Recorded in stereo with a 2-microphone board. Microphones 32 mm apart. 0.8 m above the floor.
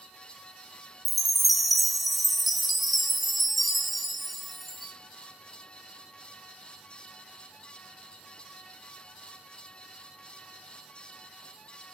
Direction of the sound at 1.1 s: Centre (ahead or behind).